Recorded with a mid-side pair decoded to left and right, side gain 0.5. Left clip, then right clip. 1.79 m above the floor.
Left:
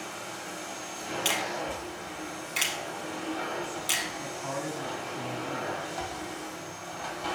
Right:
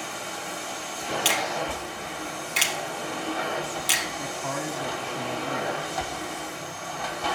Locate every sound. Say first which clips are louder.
0.0 s a machine running: right 5 dB; 60° right, 1.2 m
1.2 s a finger snap: right 4 dB; 40° right, 1.0 m
4.2 s a man speaking: right 4 dB; 50° right, 1.0 m